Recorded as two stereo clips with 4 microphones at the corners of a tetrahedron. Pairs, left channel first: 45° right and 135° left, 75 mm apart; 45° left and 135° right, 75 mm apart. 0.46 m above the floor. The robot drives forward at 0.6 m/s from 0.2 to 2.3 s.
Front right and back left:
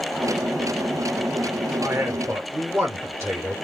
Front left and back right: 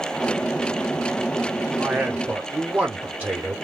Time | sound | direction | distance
1.8 | a man speaking | 150° left | 0.8 m